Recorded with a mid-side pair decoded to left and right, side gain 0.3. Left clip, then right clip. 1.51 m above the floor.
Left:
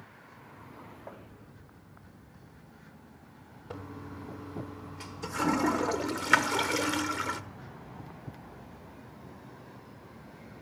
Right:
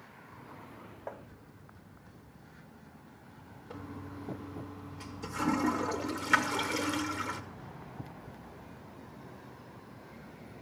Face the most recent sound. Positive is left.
turn(degrees=60)